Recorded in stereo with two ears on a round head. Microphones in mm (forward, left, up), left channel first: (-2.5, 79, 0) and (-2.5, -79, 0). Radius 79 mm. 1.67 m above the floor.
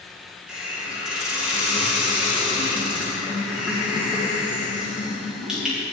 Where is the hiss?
5° right (ahead or behind), 2.5 m.